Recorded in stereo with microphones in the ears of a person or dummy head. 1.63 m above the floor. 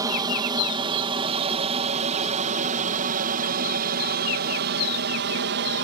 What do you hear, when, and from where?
0.0 s an aircraft: 20° right (ahead or behind); by 5.8 s 60° right (ahead or behind)